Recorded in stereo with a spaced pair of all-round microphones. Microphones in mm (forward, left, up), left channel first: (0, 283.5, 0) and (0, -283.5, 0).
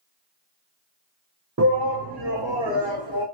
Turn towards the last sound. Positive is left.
turn(degrees=-50)  # may be behind; listen again after turning